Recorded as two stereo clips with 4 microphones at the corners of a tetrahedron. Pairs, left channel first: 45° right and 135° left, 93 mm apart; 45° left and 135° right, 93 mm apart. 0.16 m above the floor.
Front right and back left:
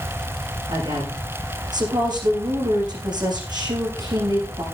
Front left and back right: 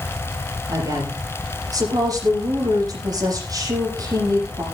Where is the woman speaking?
175° left, 8 m.